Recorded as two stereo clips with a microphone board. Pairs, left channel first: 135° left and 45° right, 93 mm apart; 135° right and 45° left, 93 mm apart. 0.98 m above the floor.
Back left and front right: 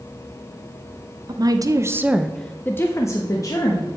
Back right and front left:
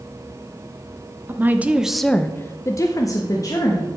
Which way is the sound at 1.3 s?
15° right.